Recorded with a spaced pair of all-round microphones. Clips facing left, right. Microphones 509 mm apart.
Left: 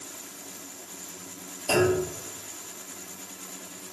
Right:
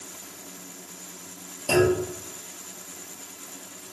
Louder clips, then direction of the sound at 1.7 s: Right 2 dB; 45° right (ahead or behind).